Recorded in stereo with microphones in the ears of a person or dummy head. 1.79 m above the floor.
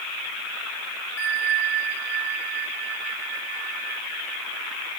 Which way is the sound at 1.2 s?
90° left.